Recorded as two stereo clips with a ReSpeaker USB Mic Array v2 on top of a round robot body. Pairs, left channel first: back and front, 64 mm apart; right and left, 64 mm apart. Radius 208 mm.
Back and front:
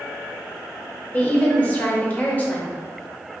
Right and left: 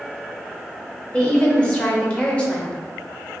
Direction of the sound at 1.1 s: 145° right.